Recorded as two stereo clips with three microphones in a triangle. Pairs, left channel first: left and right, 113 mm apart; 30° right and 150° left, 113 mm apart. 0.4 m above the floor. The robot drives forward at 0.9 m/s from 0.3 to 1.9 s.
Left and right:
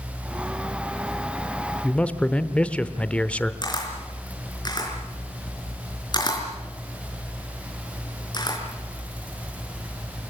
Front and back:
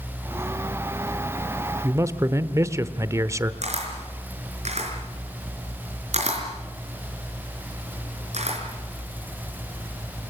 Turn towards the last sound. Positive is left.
turn(degrees=140)